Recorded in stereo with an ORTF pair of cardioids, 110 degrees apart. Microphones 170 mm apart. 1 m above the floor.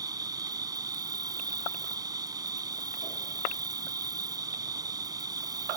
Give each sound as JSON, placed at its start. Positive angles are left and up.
{"t": 0.0, "sound": "an insect", "azimuth_deg": -20}